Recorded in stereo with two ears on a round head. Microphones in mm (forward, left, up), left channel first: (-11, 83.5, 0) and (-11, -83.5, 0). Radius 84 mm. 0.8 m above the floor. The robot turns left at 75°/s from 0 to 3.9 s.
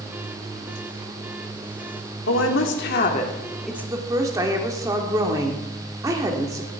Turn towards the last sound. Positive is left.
turn(degrees=-20)